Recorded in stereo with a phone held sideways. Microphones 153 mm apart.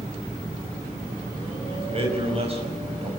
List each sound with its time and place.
1.7 s a man speaking: 40° right (ahead or behind), 5 m